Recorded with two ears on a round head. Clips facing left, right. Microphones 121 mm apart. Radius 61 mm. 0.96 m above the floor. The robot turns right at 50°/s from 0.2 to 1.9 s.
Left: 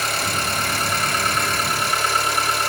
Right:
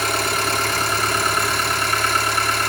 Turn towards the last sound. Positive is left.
turn(degrees=-50)